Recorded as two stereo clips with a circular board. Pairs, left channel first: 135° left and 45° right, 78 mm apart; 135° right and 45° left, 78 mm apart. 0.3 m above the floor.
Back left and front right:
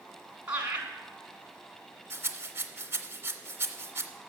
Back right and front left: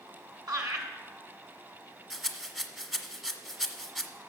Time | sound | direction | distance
0.5 | laughter | 25° left | 3 m
2.1 | a rattle | 40° right | 1.1 m